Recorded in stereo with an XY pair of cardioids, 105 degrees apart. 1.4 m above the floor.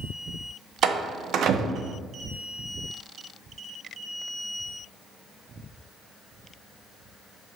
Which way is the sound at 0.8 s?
65° right.